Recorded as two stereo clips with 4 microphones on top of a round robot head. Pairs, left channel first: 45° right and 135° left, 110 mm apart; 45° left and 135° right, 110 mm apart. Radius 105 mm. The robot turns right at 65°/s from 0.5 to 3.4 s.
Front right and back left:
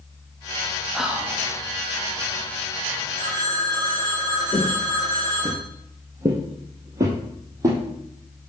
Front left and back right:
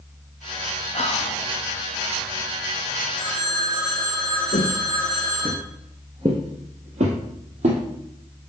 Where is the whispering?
45° left, 1.4 m; by 1.4 s 80° left, 1.4 m.